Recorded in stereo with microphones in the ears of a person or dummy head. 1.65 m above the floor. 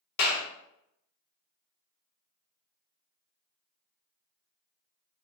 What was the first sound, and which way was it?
A clap, 60° left (ahead or behind).